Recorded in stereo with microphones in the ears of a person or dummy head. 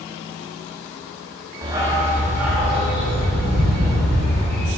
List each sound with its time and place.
1.6 s a dog barking: 20° right (ahead or behind), 0.9 m; by 4.7 s centre (ahead or behind), 4.5 m